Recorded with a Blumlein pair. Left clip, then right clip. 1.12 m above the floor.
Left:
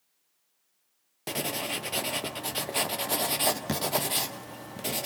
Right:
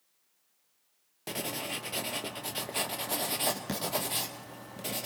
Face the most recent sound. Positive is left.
turn(degrees=15)